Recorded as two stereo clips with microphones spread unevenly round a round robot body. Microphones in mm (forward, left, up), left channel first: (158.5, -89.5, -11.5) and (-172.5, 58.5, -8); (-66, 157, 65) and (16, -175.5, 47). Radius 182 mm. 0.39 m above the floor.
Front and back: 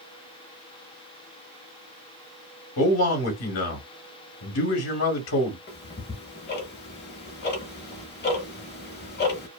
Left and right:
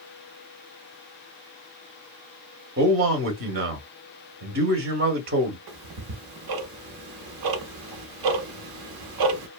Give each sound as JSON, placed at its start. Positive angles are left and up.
{"t": 2.8, "sound": "a man speaking", "azimuth_deg": -35, "distance_m": 0.9}
{"t": 5.7, "sound": "ticking", "azimuth_deg": -85, "distance_m": 0.8}